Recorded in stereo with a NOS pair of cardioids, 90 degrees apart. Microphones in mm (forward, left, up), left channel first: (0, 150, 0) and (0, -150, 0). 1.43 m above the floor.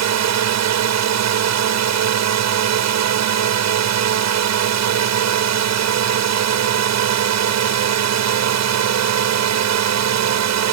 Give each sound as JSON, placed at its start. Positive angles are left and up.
{"t": 0.0, "sound": "a drone", "azimuth_deg": -65}